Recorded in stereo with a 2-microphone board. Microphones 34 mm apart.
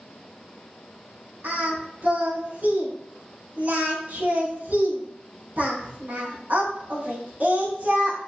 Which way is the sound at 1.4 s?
65° right (ahead or behind).